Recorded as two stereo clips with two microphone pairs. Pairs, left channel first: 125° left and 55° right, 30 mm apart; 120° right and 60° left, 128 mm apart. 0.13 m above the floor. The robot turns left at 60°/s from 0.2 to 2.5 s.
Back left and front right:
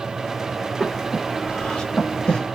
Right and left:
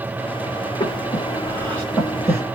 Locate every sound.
0.8 s breathing: 135° right, 1.8 m; by 2.4 s 125° left, 1.8 m